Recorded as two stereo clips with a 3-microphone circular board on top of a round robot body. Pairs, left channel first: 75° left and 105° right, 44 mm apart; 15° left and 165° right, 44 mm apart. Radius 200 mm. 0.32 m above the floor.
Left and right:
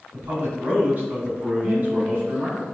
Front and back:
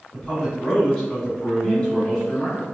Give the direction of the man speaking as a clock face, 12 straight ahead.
2 o'clock.